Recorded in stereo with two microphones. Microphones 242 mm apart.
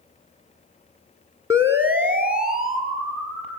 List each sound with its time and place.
1.5 s a siren: 10° right (ahead or behind), 2.5 m; by 3.6 s centre (ahead or behind), 5 m